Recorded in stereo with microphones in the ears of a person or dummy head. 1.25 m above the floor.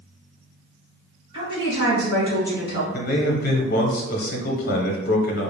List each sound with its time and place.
1.3 s a woman speaking: 30° right (ahead or behind), 1.7 m
2.9 s a man speaking: 50° left (ahead or behind), 0.8 m